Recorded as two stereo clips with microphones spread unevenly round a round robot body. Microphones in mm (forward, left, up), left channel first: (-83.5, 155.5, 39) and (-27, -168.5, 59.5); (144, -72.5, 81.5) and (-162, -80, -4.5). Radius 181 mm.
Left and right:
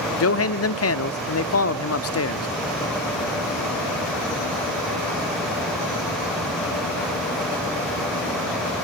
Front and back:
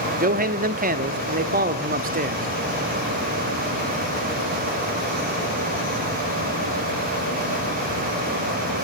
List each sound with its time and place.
0.2 s a man speaking: 135° left, 1.2 m